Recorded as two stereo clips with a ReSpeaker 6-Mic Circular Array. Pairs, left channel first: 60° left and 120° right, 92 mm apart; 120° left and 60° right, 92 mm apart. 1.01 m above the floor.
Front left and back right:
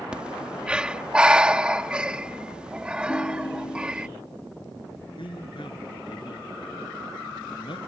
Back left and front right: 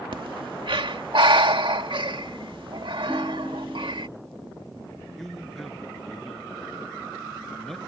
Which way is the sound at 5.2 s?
30° left.